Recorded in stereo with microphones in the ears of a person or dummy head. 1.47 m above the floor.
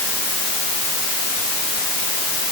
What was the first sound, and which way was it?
Only background noise.